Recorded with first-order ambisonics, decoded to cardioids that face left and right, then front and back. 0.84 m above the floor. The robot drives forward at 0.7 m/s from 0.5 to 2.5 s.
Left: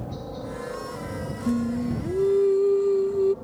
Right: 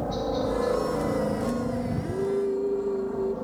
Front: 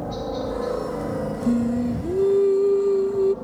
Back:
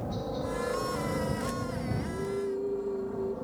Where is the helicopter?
55° right; by 3.5 s 70° right.